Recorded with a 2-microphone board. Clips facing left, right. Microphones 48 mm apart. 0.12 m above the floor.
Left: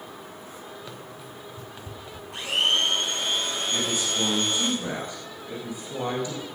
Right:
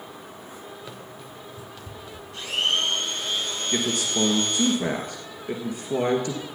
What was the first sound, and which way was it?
Running footsteps, 5° right (ahead or behind).